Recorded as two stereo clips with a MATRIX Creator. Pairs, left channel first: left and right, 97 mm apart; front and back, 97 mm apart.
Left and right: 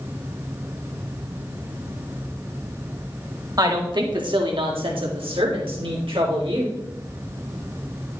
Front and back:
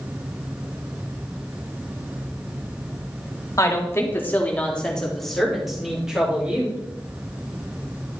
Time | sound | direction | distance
3.6 | a woman speaking | 50° right | 1.9 m